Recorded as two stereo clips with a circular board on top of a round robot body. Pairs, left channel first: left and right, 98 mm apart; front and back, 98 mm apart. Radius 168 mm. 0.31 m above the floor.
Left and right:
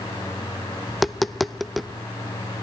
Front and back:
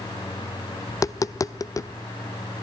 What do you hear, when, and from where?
0.9 s tapping: straight ahead, 0.5 m